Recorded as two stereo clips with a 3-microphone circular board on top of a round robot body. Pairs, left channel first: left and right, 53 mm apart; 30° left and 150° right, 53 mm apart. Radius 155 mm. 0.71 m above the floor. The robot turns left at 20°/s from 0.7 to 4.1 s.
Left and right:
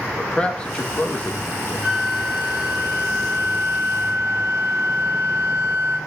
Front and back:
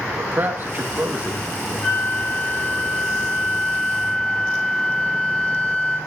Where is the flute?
5° left, 8.5 m; by 6.0 s 40° right, 8.5 m.